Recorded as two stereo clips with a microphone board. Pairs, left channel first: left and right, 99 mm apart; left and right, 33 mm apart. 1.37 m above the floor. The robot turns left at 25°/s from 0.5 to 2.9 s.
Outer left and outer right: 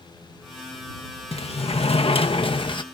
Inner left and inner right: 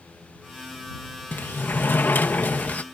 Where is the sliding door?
95° left; by 2.8 s 55° left.